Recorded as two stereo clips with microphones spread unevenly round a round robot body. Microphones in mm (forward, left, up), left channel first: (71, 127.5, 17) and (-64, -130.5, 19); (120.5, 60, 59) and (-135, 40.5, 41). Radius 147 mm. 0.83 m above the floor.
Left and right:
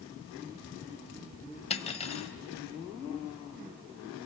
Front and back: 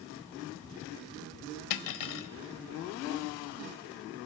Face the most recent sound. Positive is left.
turn(degrees=-10)